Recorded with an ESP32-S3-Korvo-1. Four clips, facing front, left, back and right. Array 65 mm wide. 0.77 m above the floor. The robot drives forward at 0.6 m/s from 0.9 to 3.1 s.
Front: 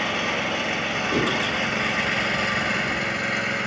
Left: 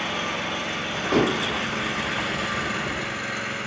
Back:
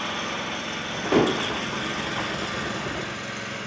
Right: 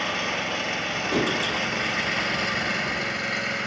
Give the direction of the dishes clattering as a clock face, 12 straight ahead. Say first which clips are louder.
Left 4 dB, back 5 dB; 6 o'clock.